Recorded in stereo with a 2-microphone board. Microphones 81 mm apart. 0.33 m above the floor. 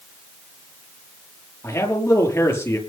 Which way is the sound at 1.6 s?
30° left (ahead or behind).